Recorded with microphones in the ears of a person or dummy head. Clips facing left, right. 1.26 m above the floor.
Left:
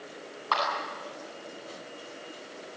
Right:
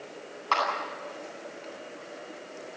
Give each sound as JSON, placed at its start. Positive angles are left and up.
{"t": 0.5, "sound": "a clap", "side_deg": -30, "distance_m": 9.5}